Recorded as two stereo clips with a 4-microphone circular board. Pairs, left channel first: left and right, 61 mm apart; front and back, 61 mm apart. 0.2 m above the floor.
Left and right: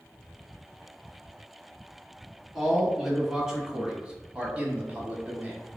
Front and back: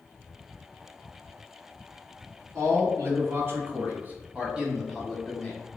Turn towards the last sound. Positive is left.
turn(degrees=-55)